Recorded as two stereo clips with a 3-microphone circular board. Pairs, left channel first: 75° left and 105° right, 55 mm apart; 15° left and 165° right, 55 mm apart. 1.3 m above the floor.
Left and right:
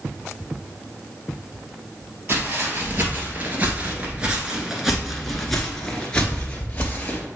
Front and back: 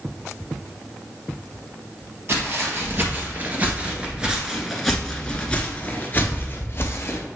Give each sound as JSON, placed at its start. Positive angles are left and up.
{"t": 2.3, "sound": "footsteps", "azimuth_deg": -140, "distance_m": 2.0}